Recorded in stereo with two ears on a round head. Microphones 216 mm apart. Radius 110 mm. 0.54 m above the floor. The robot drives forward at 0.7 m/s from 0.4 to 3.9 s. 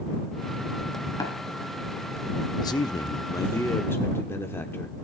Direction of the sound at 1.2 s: 15° left (ahead or behind).